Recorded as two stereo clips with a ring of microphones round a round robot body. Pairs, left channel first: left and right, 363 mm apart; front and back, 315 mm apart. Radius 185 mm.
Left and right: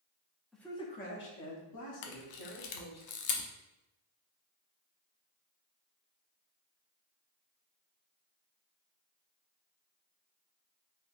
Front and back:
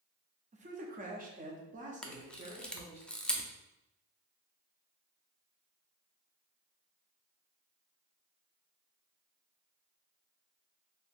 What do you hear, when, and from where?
0.5 s a man speaking: straight behind, 0.6 m; by 3.0 s 110° left, 1.4 m
2.0 s a camera shutter: 85° left, 0.6 m